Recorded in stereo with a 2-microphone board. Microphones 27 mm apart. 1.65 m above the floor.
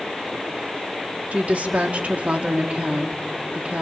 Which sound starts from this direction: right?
A woman speaking, at 1.3 s.